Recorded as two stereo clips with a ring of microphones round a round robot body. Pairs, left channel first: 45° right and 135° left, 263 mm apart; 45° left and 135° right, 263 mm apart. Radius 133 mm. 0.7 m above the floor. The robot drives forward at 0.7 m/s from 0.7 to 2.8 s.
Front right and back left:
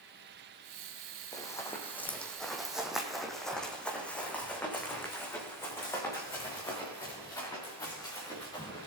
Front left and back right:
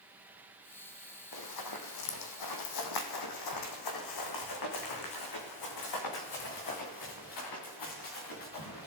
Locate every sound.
1.3 s running footsteps: 30° left, 1.9 m